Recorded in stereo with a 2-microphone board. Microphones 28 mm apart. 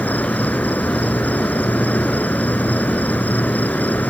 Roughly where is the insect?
Left.